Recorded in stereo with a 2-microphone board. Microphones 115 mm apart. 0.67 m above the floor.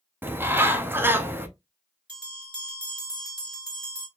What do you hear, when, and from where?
0.2 s a bird: 20° right (ahead or behind), 0.6 m
2.1 s a bell: 40° right (ahead or behind), 2.5 m